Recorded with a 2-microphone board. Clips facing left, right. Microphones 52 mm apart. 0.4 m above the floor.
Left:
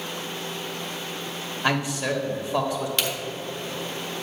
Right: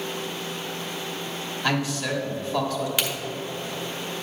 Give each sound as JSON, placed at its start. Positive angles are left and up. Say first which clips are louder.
{"t": 1.6, "sound": "a man speaking", "louder": "left 1 dB", "side_deg": 20, "distance_m": 1.3}
{"t": 3.0, "sound": "a crack", "louder": "even", "side_deg": -10, "distance_m": 1.0}